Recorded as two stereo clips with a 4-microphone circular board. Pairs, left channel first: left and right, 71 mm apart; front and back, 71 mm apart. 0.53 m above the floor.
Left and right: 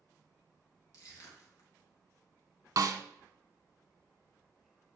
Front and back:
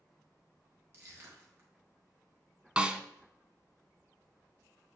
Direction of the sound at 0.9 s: 130° left.